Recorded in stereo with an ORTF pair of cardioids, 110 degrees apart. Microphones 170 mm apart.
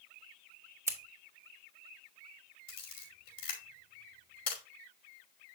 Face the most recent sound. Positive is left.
turn(degrees=60)